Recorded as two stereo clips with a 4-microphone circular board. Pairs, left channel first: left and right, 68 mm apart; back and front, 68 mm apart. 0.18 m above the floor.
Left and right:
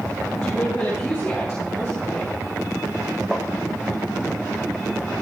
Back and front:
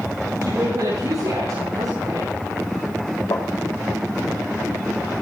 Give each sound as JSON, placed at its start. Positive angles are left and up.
{"t": 0.4, "sound": "a woman speaking", "azimuth_deg": 15, "distance_m": 7.5}
{"t": 3.3, "sound": "tapping", "azimuth_deg": -175, "distance_m": 1.8}